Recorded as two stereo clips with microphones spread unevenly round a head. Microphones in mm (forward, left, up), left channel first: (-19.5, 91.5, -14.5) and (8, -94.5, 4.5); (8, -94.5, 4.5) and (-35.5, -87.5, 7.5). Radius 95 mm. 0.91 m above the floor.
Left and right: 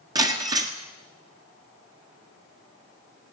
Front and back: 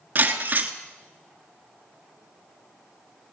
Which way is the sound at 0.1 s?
145° right.